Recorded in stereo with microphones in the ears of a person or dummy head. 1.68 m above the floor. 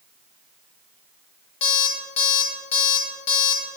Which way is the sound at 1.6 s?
35° left (ahead or behind).